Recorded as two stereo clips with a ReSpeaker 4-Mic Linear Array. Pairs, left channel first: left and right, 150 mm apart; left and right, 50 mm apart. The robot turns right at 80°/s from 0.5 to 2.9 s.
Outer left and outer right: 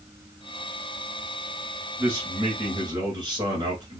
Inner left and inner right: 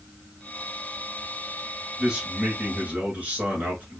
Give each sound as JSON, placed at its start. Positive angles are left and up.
{"t": 2.0, "sound": "a man speaking", "side_deg": -10, "distance_m": 1.7}